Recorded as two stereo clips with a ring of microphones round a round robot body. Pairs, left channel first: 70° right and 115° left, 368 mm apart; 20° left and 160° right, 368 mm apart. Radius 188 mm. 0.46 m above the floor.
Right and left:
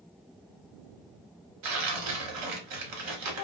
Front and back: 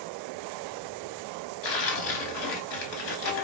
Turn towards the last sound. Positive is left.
turn(degrees=75)